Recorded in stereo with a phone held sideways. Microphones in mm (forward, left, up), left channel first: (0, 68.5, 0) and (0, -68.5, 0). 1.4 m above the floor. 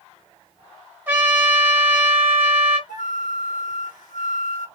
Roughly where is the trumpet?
Centre.